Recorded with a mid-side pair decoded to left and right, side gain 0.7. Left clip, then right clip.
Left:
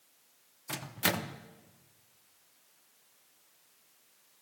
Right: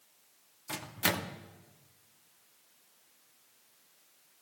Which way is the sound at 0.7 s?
10° left.